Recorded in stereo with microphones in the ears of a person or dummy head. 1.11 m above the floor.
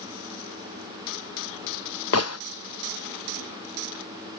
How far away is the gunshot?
About 0.6 m.